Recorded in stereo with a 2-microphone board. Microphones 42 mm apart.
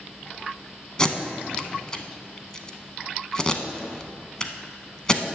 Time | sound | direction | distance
1.0 | tape being pulled | 20° left (ahead or behind) | 0.6 m